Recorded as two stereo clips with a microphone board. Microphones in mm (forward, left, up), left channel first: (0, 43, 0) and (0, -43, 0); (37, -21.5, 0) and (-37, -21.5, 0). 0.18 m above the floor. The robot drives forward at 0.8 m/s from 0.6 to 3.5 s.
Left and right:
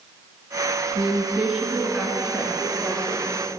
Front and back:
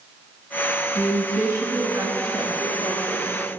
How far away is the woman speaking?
About 1.0 m.